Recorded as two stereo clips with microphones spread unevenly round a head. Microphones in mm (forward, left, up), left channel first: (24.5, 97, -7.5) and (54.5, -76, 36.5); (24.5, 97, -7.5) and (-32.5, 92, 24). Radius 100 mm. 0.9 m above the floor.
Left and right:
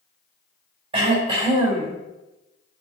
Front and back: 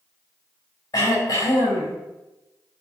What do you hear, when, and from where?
0.9 s throat clearing: 20° right, 5 m